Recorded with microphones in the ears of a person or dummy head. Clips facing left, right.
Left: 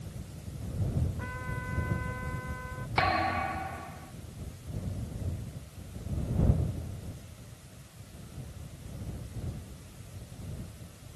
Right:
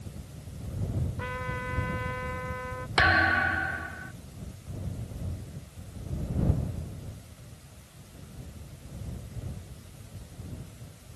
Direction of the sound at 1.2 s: 60° right (ahead or behind).